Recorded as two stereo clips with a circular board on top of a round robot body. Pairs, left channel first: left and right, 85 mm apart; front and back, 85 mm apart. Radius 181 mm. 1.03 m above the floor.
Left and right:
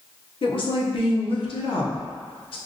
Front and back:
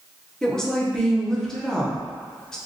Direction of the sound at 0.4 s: 85° left.